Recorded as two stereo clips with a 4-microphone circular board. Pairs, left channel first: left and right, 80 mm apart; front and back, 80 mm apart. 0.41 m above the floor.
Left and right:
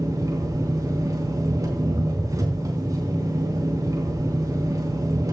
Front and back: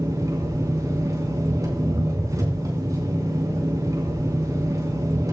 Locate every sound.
0.0 s an engine running: 135° right, 3.5 m